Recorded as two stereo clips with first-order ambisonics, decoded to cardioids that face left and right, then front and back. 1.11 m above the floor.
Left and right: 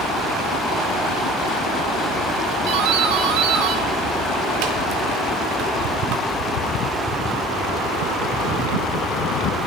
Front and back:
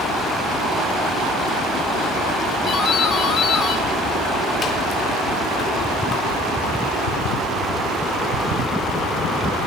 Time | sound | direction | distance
2.7 | a doorbell | 65° right | 3.5 m